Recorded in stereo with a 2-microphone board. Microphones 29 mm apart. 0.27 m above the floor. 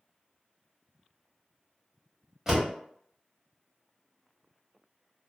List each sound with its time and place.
2.5 s a door slam: 15° right (ahead or behind), 1.0 m